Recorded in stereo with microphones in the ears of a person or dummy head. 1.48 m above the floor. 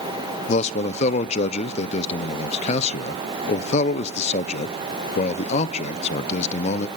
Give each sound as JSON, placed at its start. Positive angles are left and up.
{"t": 0.5, "sound": "a man speaking", "side_deg": 35, "distance_m": 0.8}